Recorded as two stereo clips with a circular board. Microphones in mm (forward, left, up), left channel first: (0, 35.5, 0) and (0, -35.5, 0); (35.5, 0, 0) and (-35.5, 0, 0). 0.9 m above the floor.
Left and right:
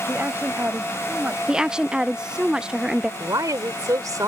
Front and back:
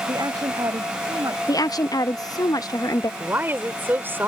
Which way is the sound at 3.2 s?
120° right.